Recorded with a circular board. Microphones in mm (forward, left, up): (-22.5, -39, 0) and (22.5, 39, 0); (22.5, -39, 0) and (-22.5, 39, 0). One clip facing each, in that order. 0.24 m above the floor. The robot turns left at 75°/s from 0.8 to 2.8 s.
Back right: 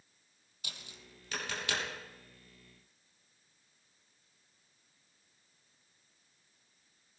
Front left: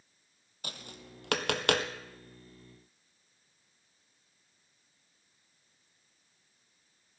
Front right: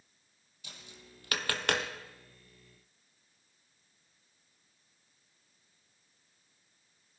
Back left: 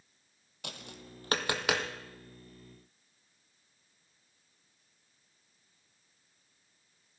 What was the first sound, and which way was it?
Tapping, 100° left.